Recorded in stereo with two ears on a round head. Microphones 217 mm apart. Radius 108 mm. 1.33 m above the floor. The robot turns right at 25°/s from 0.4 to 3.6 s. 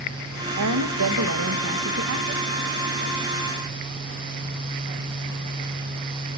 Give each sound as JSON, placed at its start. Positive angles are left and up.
{"t": 0.6, "sound": "a woman speaking", "azimuth_deg": -90, "distance_m": 1.6}